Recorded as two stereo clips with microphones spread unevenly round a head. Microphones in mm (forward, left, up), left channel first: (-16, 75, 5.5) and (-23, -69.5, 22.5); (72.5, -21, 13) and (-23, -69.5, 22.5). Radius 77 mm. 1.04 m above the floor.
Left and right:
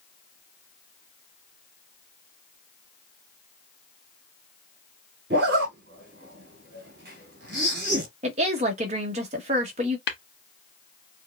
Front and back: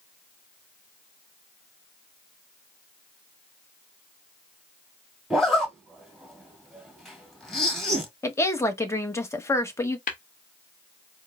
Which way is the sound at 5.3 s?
65° right.